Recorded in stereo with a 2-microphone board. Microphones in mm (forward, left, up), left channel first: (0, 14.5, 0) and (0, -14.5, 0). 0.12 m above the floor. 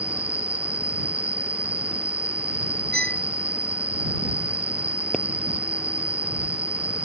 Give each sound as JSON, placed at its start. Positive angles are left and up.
{"t": 0.0, "sound": "an insect", "side_deg": -60}
{"t": 2.9, "sound": "a violin", "side_deg": 40}
{"t": 5.1, "sound": "a pop", "side_deg": 35}